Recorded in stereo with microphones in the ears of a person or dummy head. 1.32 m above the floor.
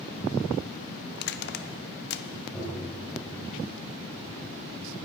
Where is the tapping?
Centre (ahead or behind), 7.5 m.